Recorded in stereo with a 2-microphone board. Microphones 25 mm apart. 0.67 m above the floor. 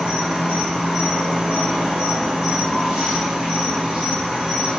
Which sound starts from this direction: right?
An insect, at 0.0 s.